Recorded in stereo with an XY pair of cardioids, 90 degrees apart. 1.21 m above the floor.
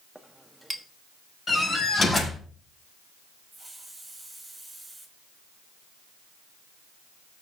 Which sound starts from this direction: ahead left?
A door slam, at 1.5 s.